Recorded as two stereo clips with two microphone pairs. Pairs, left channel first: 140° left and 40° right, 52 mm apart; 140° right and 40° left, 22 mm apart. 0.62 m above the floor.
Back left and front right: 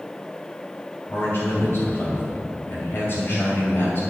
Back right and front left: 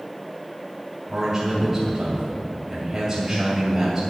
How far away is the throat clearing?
No throat clearing in this recording.